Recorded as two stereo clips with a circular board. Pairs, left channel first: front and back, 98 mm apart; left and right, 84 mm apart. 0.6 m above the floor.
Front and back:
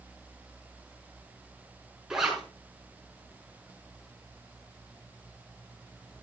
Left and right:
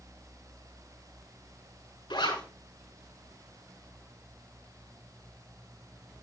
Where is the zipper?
95° left, 5.5 m.